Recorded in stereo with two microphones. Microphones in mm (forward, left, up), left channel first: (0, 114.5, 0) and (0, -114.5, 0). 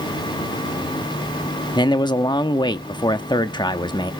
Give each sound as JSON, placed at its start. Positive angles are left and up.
{"t": 1.8, "sound": "a man speaking", "side_deg": 20, "distance_m": 0.8}